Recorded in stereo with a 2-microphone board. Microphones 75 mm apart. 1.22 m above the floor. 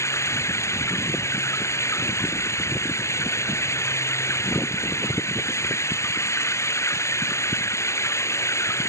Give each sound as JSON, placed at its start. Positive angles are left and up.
{"t": 0.0, "sound": "running water", "side_deg": 40}